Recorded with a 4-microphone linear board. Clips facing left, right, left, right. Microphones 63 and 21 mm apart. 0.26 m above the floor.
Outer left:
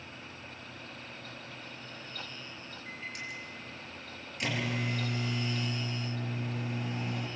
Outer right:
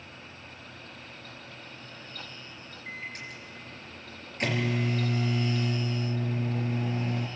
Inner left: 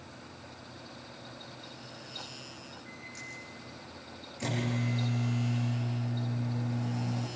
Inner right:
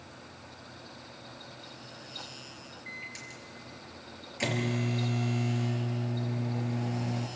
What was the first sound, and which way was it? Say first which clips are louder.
A microwave: outer right 2 dB, inner right 4 dB; 40° right (ahead or behind).